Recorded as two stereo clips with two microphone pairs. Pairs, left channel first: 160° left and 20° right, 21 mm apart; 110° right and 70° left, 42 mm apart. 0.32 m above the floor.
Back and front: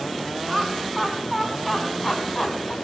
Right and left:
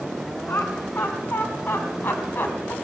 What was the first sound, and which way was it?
Laughter, 100° right.